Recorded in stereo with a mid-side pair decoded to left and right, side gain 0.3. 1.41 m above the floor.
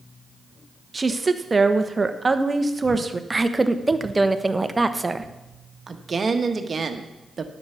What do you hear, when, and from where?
0.9 s a woman speaking: 35° right, 1.0 m
3.3 s a woman speaking: 25° right, 1.0 m
5.9 s a woman speaking: 50° right, 1.4 m